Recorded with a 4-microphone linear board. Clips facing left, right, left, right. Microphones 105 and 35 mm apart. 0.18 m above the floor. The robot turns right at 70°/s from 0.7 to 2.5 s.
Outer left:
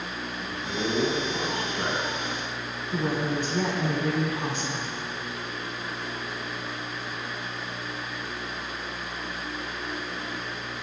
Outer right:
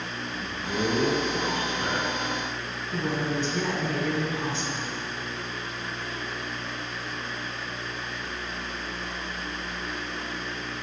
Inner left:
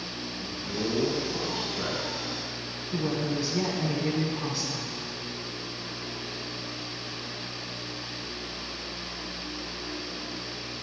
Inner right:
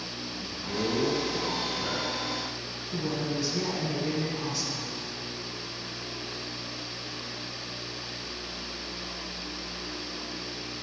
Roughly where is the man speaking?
Ahead right.